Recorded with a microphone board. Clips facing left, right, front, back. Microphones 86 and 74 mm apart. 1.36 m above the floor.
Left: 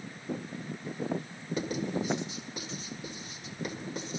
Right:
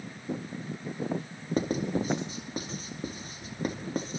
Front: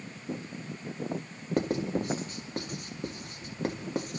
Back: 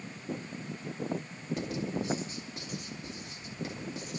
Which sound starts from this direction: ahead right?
Writing, at 1.6 s.